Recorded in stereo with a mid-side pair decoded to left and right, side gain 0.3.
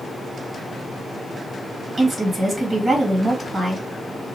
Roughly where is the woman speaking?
Ahead right.